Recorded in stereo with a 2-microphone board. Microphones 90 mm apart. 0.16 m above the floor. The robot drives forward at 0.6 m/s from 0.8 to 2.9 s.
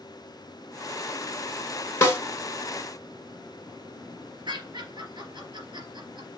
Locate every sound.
2.0 s a snare drum: 30° left (ahead or behind), 0.8 m
4.5 s laughter: 50° right (ahead or behind), 2.5 m